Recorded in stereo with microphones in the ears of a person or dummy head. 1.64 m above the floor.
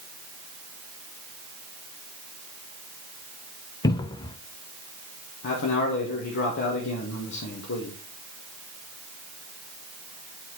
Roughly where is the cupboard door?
Left.